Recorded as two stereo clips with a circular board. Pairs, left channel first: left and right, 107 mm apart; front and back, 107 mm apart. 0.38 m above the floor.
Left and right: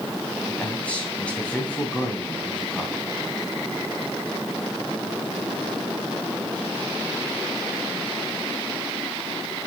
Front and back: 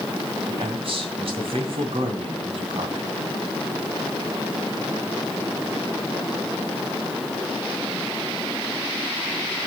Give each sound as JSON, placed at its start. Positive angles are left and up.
{"t": 0.5, "sound": "a man speaking", "azimuth_deg": 165, "distance_m": 2.5}